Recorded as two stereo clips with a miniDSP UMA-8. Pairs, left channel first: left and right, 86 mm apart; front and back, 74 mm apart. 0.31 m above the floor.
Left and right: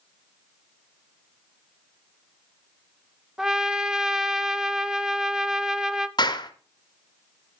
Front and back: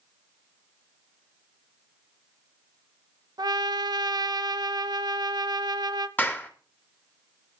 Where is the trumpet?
170° right, 0.6 m.